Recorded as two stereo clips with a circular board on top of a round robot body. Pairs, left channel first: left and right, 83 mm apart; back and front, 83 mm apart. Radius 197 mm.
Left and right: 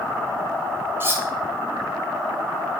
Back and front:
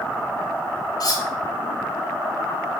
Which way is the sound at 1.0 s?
150° right.